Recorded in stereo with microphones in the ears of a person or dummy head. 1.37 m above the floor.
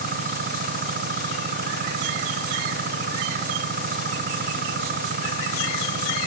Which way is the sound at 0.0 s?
50° right (ahead or behind).